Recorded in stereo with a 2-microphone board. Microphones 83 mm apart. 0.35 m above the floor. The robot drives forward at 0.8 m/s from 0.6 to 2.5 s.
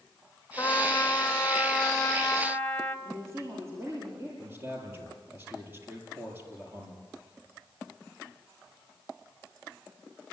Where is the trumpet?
30° left (ahead or behind), 0.9 m; by 3.0 s 15° left (ahead or behind), 1.9 m.